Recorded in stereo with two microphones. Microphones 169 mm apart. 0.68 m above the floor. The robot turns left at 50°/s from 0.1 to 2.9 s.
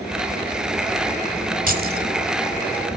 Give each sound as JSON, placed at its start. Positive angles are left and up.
{"t": 1.7, "sound": "keys jangling", "side_deg": -55, "distance_m": 2.0}